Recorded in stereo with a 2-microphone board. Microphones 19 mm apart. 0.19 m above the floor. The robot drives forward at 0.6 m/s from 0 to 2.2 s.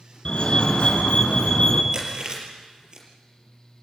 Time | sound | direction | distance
0.2 | a fire alarm | 45° left (ahead or behind) | 4 m
1.9 | chewing | 35° right (ahead or behind) | 5 m